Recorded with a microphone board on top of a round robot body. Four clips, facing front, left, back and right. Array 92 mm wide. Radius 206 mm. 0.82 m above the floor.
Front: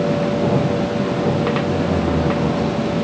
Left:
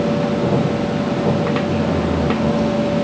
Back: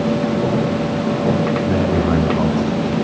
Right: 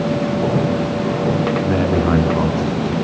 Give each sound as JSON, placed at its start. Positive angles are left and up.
{"t": 1.6, "sound": "a man speaking", "azimuth_deg": -105, "distance_m": 10.0}